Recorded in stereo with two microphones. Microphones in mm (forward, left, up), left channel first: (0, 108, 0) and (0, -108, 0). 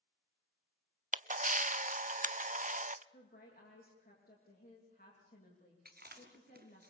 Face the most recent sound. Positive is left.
turn(degrees=-45)  # may be behind; listen again after turning